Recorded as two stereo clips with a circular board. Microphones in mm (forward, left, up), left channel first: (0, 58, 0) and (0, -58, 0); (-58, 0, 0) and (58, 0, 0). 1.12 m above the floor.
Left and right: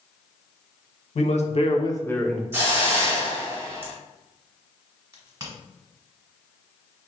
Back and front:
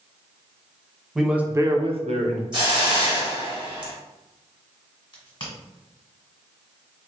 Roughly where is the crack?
Behind right.